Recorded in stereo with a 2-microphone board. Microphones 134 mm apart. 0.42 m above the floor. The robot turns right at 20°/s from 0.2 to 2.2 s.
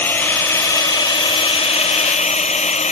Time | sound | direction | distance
0.0 | a drone | 15° left | ?